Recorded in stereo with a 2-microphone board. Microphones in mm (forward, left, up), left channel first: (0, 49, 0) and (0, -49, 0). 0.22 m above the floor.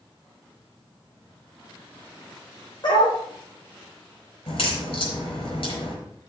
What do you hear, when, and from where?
2.8 s a dog barking: 50° left (ahead or behind), 4 m
4.5 s a crack: 70° left (ahead or behind), 5 m